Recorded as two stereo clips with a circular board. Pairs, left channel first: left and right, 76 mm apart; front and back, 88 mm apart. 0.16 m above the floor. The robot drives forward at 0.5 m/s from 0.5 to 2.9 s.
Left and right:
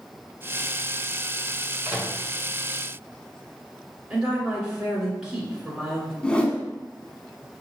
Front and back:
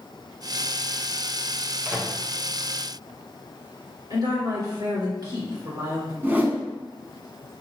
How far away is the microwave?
About 1.6 m.